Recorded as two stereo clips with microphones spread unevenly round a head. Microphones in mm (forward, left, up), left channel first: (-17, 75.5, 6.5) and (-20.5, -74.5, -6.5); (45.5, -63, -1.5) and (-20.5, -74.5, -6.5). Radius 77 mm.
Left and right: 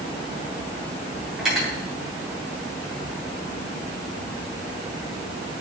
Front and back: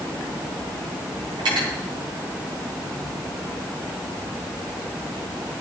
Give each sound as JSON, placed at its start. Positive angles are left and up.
{"t": 1.4, "sound": "cutlery clinking", "azimuth_deg": 180, "distance_m": 7.5}